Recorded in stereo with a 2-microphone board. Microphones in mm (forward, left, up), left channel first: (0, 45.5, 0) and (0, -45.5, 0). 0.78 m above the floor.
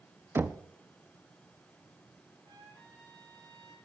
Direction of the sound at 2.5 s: 60° right (ahead or behind).